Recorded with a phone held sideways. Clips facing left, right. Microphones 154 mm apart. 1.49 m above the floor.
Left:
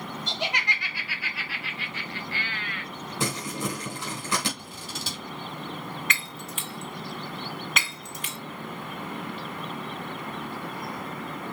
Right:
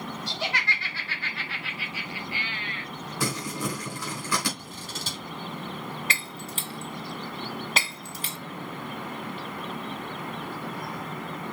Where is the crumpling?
25° left (ahead or behind), 3.5 m.